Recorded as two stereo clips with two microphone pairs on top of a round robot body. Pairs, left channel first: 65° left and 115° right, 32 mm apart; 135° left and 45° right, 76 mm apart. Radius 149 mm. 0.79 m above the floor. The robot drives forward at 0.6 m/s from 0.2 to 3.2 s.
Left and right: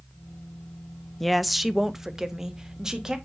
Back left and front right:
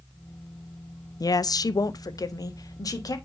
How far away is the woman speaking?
About 0.6 m.